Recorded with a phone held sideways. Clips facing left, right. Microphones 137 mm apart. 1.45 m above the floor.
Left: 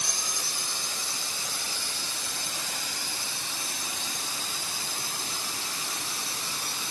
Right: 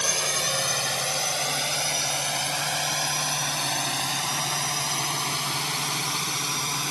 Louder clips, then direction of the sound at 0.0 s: Right 9 dB; 80° right.